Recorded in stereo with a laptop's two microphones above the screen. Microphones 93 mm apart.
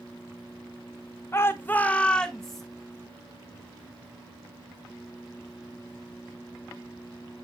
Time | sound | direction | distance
1.3 | a shout | 25° left (ahead or behind) | 1.1 m